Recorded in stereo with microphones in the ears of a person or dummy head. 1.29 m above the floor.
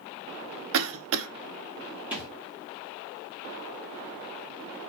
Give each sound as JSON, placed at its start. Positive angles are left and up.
{"t": 0.7, "sound": "a cough", "side_deg": -70, "distance_m": 0.8}
{"t": 2.1, "sound": "a thud", "side_deg": -5, "distance_m": 1.3}